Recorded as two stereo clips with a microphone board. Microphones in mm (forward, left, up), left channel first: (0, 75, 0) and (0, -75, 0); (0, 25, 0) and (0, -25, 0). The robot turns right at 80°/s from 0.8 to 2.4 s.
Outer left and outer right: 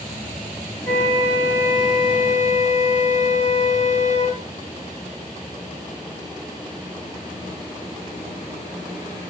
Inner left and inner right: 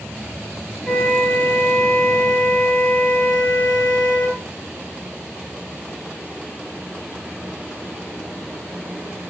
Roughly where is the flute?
Ahead.